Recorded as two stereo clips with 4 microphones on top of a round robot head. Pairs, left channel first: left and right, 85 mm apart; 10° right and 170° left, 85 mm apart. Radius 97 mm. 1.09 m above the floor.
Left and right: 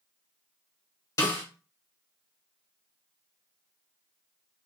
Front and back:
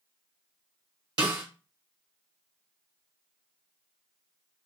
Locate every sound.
1.2 s a snare drum: 140° left, 1.4 m